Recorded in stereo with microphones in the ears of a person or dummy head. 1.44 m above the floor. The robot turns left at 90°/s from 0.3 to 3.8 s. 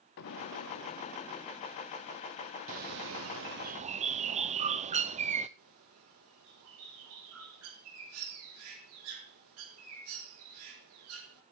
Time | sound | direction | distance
0.2 | an explosion | 115° left | 1.4 m
2.7 | a bird | 40° right | 0.6 m
5.6 | a bird | 80° right | 4 m